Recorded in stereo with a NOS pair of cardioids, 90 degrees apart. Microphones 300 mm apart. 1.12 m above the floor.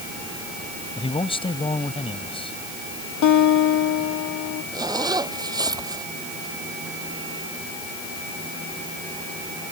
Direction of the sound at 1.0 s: 15° left.